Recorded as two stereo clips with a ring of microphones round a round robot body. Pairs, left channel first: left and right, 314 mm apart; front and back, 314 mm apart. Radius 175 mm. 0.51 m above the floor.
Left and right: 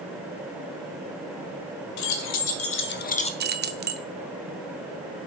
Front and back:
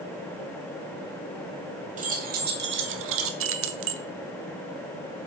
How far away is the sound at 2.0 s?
About 1.1 m.